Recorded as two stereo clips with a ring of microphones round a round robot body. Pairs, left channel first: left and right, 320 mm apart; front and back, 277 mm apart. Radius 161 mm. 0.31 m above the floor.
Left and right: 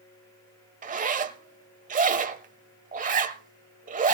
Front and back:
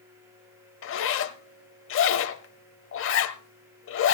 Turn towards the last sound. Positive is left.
turn(degrees=-30)